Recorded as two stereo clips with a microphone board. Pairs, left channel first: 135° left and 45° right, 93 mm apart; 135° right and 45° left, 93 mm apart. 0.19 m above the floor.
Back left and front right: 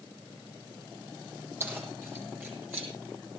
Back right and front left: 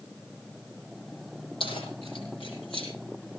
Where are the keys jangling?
110° right, 5.5 m; by 2.9 s 120° right, 6 m.